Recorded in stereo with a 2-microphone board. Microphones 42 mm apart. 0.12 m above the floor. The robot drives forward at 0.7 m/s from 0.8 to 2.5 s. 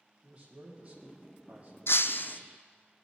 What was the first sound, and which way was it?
A man speaking, 30° right (ahead or behind).